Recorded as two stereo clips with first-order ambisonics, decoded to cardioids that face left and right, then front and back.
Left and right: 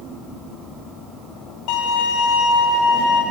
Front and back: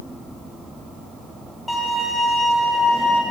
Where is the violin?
80° left, 2.5 m.